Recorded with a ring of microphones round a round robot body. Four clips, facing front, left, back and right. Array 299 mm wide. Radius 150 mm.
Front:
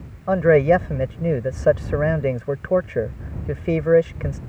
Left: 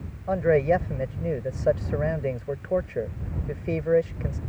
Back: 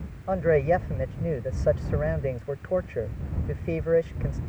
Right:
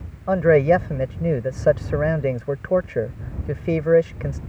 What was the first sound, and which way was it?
A man speaking, 40° right.